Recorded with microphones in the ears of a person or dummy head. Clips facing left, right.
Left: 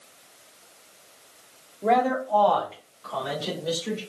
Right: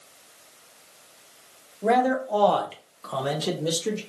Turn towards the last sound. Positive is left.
turn(degrees=-70)  # may be behind; listen again after turning